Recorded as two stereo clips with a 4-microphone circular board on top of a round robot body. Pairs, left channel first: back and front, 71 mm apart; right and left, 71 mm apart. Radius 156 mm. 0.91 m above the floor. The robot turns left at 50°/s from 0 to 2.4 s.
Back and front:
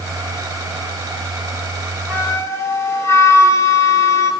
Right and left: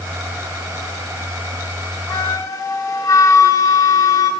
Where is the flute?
110° right, 5 m; by 4.3 s 130° right, 5 m.